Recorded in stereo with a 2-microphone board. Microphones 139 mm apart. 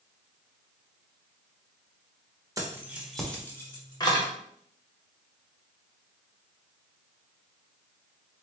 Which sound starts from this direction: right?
Keys jangling, at 2.6 s.